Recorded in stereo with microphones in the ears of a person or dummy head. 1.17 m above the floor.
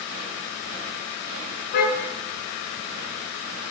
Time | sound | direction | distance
1.7 | a car horn | 55° left (ahead or behind) | 7 m